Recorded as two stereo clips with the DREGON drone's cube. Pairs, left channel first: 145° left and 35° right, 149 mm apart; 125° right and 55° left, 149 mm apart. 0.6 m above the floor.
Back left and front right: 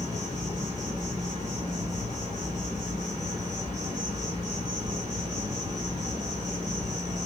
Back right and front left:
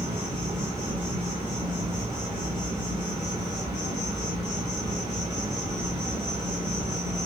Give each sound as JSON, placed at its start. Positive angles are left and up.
{"t": 0.0, "sound": "an insect", "azimuth_deg": 0, "distance_m": 2.0}